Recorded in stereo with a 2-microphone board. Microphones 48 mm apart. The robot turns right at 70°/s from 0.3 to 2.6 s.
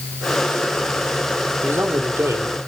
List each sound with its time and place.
1.6 s a man speaking: 130° right, 3 m; by 2.6 s 65° right, 3 m